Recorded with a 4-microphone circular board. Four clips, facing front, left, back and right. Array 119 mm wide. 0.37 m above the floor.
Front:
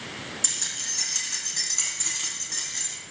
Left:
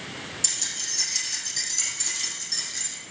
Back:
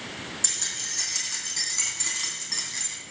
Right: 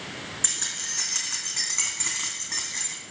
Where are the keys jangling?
90° right, 3.5 m; by 3.0 s 100° right, 2 m.